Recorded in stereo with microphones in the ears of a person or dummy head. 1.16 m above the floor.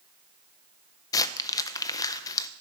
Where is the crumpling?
25° left (ahead or behind), 0.6 m.